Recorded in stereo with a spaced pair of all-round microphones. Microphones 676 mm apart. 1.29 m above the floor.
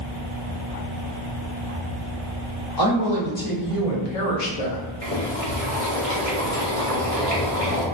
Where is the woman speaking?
30° left (ahead or behind), 1.5 m; by 4.8 s 55° left (ahead or behind), 0.8 m.